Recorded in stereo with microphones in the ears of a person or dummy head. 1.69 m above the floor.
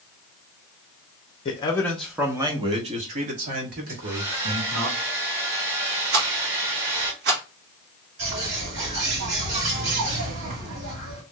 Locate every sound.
1.4 s a man speaking: 30° left (ahead or behind), 0.7 m; by 4.9 s 55° right (ahead or behind), 2 m
3.9 s a hair dryer: 20° right (ahead or behind), 2 m
6.1 s a rattle: 55° right (ahead or behind), 1.5 m
8.2 s a bird: 50° right (ahead or behind), 2.5 m